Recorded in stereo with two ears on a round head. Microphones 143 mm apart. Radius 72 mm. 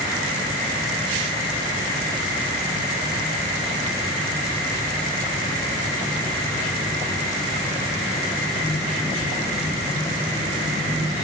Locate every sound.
Only background noise.